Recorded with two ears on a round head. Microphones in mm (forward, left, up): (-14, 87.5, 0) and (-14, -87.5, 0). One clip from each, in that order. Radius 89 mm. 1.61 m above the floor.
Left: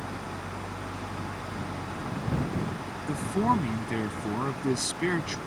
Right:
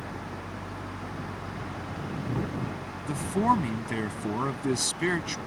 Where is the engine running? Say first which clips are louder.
Left 1 dB; 60° left (ahead or behind).